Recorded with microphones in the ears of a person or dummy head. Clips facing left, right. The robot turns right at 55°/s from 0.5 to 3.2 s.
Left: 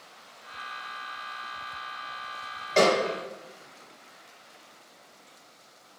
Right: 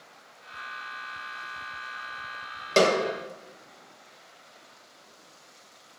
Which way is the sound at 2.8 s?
55° right (ahead or behind).